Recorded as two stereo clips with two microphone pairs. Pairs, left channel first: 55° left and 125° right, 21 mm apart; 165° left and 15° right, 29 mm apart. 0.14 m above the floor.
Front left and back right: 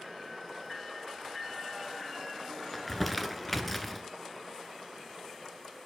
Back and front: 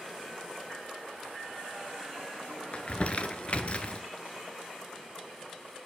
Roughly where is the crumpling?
Behind left.